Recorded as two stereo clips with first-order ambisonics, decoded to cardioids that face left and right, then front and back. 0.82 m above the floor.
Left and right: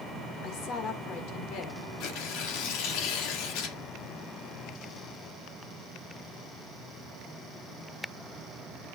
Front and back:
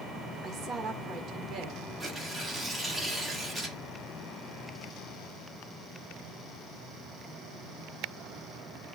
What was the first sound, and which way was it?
A woman speaking, 120° left.